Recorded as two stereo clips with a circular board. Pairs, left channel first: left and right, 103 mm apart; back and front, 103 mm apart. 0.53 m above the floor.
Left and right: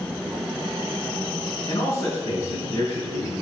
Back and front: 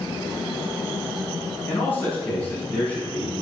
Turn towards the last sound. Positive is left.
turn(degrees=105)